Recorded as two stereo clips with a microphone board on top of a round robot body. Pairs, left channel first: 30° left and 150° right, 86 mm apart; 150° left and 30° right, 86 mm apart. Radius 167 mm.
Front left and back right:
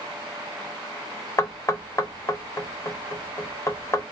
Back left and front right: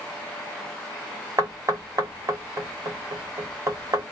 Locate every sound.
1.4 s knocking: 5° right, 1.1 m